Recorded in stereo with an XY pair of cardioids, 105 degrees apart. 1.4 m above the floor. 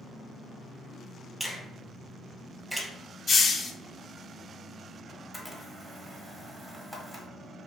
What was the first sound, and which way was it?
A finger snap, 5° right.